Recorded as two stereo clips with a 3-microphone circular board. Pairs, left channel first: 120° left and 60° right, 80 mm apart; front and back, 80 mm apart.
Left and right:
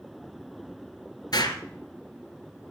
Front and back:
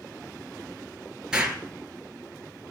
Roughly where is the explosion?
Left.